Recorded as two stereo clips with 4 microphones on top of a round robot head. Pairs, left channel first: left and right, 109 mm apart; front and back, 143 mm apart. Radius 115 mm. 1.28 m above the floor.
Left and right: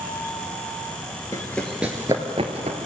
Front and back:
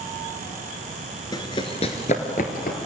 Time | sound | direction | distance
1.3 | running footsteps | 30° left | 1.3 m